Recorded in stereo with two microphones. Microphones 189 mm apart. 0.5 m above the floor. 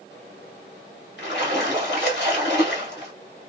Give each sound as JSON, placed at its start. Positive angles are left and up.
{"t": 1.2, "sound": "a splash", "side_deg": 70, "distance_m": 1.7}